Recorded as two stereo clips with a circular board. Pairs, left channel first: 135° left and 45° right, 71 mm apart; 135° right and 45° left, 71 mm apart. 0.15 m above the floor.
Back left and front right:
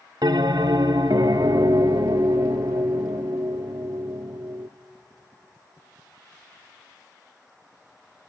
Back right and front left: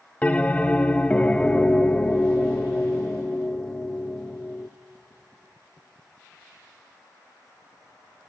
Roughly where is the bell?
Ahead right.